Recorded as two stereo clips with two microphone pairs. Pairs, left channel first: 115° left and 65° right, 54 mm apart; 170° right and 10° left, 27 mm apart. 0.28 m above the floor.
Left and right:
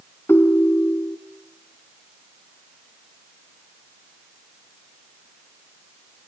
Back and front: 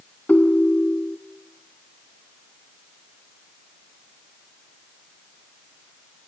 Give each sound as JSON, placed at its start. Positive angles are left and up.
{"t": 0.3, "sound": "a ringtone", "azimuth_deg": 155, "distance_m": 1.2}